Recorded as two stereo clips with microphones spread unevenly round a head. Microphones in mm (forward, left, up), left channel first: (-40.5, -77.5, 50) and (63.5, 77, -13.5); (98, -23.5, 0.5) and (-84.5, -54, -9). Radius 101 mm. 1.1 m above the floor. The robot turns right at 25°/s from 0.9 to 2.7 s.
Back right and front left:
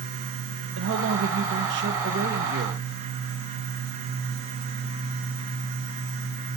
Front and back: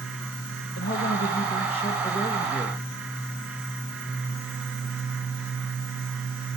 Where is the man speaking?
55° left, 1.3 m; by 2.8 s 100° left, 1.3 m.